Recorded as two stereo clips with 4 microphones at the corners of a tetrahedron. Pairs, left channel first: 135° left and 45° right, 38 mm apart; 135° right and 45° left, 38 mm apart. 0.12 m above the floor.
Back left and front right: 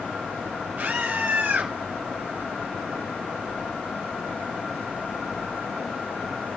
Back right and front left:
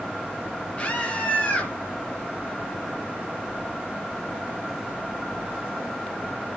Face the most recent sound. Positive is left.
turn(degrees=-90)